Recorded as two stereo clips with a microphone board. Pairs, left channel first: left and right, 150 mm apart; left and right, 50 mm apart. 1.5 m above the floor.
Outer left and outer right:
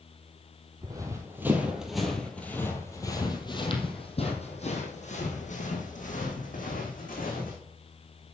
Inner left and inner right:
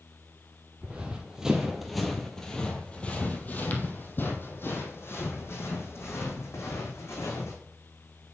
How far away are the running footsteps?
About 2 m.